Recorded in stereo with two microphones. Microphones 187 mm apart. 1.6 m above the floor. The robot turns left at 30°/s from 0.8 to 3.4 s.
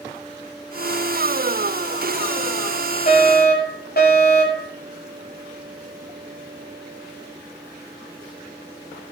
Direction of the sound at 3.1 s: 45° left (ahead or behind).